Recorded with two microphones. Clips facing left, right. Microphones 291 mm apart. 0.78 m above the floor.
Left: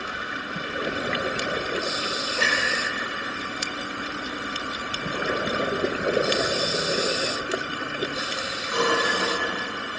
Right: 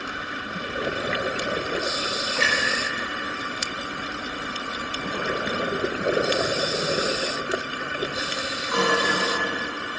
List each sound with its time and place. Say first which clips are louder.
2.4 s a clunk: right 1 dB; 75° right (ahead or behind), 6 m